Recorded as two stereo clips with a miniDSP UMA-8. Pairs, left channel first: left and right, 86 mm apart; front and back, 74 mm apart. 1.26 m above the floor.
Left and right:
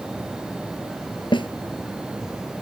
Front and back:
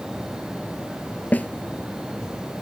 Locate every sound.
1.3 s a snare drum: 70° left